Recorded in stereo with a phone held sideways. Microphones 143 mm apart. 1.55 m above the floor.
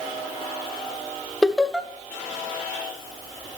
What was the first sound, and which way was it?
Laughter, centre (ahead or behind).